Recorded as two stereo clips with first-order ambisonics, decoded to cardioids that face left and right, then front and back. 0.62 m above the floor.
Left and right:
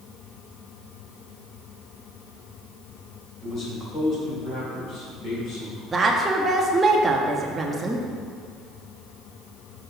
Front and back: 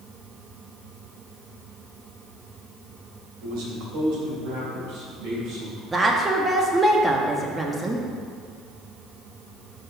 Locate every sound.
3.4 s a man speaking: 160° left, 2 m; by 5.8 s 140° left, 4 m
5.9 s a woman speaking: 130° right, 0.5 m